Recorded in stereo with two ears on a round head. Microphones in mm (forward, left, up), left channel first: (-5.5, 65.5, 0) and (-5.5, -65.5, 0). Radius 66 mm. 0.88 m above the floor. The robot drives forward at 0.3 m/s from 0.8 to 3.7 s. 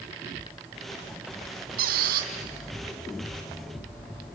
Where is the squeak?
70° right (ahead or behind), 2.5 m.